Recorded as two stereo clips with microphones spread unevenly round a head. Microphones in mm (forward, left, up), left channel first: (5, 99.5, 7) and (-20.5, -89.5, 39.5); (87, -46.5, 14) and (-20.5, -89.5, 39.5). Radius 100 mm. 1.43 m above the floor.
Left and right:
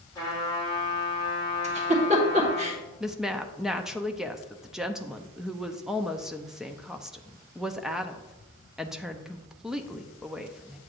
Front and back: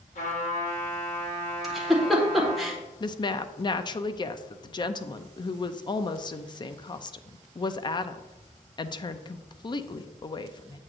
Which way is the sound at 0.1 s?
5° left.